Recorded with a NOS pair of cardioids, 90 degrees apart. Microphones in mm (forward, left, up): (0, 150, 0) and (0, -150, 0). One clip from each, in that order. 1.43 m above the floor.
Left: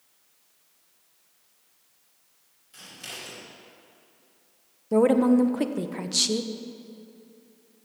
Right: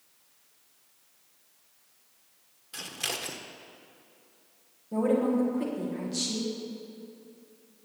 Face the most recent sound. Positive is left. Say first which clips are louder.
# left 6 dB
turn(degrees=65)